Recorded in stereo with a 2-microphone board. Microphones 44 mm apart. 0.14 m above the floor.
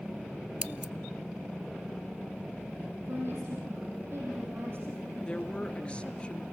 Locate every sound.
0.6 s scissors: 25° right (ahead or behind), 0.7 m
3.1 s a woman speaking: 55° right (ahead or behind), 6.5 m
5.2 s a woman speaking: 25° left (ahead or behind), 1.8 m